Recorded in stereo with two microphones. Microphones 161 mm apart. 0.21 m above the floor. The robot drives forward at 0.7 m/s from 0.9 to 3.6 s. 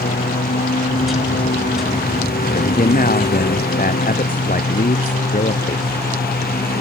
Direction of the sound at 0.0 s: 75° left (ahead or behind).